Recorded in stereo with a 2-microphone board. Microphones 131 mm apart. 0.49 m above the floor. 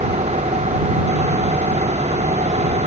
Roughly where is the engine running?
Right.